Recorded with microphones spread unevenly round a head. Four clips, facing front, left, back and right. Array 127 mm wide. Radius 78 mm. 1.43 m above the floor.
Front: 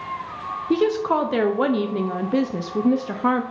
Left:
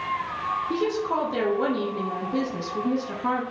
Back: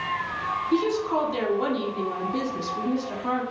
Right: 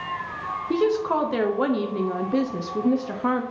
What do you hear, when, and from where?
0.7 s a woman speaking: 15° right, 0.8 m